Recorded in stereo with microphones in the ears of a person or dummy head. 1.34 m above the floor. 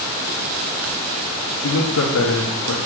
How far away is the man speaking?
About 0.7 m.